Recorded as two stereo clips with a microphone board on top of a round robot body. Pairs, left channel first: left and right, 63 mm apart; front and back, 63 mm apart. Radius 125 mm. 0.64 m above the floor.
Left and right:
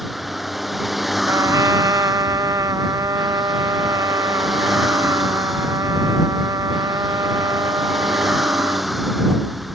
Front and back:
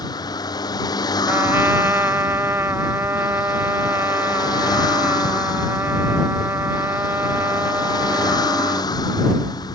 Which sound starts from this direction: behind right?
A trumpet, at 1.3 s.